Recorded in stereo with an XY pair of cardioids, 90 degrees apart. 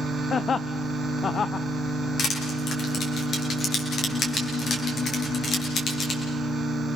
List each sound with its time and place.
0.3 s laughter: 50° left, 0.6 m
2.2 s crushing: 65° left, 6 m